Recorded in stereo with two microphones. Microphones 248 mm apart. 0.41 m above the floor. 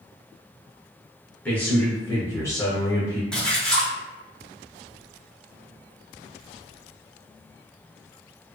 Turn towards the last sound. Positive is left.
turn(degrees=5)  # may be behind; listen again after turning